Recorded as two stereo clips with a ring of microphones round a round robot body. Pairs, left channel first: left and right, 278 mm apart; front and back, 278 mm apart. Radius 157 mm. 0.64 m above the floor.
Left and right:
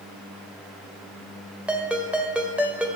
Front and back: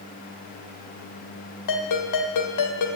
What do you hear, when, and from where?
1.7 s a ringtone: 5° right, 1.6 m